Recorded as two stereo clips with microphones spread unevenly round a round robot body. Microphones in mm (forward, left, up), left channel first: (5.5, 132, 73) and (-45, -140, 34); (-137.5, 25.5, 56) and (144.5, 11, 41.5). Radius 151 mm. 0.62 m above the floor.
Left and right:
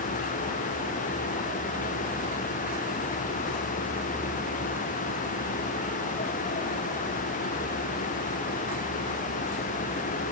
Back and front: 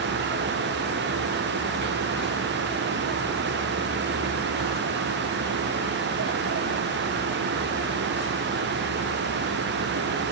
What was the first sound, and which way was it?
Only background noise.